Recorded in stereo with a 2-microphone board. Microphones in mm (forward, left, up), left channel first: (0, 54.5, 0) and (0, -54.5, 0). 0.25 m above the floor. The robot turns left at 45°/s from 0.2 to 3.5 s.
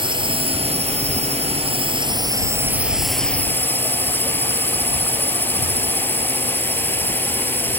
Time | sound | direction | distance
0.0 | a drone | 50° right | ?